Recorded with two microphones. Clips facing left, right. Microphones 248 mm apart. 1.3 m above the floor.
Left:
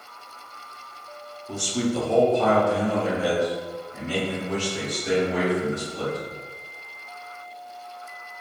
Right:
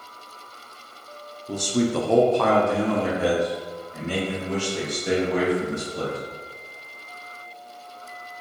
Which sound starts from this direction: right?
A man speaking, at 1.5 s.